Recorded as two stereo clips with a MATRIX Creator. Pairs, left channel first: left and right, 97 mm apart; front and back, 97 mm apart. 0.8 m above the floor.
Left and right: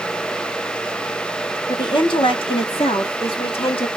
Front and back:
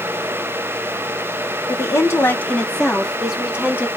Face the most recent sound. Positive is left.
turn(degrees=110)